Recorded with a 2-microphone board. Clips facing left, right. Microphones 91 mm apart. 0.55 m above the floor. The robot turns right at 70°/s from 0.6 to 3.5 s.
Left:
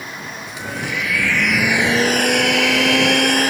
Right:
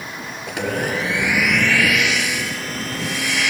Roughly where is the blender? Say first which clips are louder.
Right 6 dB; ahead right.